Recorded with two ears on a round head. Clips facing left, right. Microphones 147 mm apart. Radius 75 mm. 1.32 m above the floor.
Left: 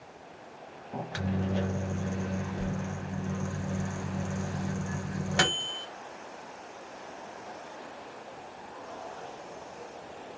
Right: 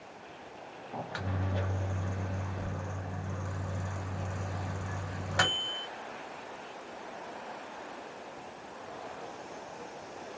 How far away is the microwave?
About 0.5 m.